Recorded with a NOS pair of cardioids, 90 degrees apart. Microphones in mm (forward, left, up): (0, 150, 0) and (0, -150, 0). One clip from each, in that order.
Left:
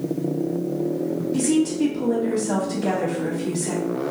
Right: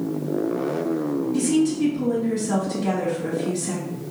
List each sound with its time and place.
1.3 s a woman speaking: 25° left, 1.2 m